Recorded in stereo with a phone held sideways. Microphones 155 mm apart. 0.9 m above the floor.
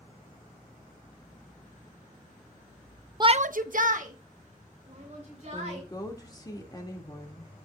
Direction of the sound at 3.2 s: 30° right (ahead or behind).